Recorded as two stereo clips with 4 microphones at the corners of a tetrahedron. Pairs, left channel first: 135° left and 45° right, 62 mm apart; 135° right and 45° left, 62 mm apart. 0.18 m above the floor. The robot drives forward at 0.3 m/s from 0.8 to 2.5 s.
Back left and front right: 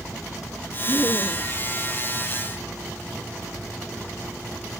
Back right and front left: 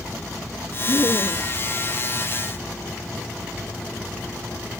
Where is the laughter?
170° right.